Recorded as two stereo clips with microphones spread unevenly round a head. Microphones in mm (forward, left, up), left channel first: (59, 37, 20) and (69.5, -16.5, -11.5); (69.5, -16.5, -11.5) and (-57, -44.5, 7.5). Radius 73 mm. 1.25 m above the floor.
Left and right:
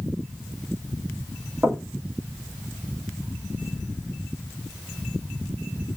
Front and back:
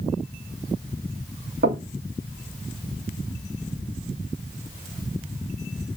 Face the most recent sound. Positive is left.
turn(degrees=-155)